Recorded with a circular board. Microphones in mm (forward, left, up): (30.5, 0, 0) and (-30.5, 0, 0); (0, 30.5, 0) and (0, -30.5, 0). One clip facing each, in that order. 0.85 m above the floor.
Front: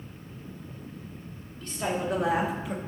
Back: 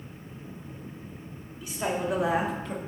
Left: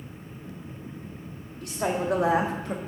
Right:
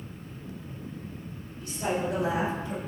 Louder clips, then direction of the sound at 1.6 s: Even, left 2 dB; 100° left.